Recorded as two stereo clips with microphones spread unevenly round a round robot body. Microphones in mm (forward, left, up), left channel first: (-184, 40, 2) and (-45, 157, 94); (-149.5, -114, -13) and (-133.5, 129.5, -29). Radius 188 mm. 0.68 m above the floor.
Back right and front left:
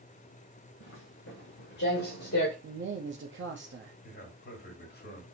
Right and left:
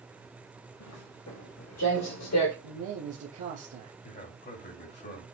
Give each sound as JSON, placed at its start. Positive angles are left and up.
{"t": 0.8, "sound": "footsteps", "azimuth_deg": -110, "distance_m": 3.0}
{"t": 2.6, "sound": "a man speaking", "azimuth_deg": 85, "distance_m": 0.9}
{"t": 4.0, "sound": "a man speaking", "azimuth_deg": -145, "distance_m": 3.0}